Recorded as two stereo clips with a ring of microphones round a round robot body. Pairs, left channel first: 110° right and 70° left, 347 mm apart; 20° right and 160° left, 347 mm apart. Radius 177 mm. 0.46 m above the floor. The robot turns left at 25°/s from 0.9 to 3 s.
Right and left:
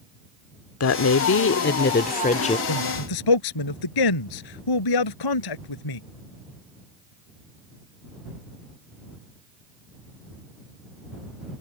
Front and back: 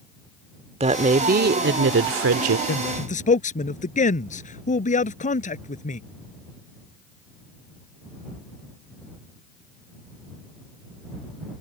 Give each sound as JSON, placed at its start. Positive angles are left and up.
{"t": 0.8, "sound": "a woman speaking", "azimuth_deg": -140}
{"t": 2.7, "sound": "a man speaking", "azimuth_deg": -85}